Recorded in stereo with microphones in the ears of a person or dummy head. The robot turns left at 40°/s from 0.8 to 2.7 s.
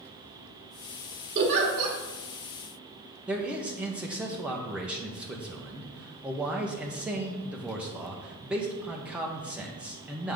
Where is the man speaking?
5° right (ahead or behind), 0.9 m.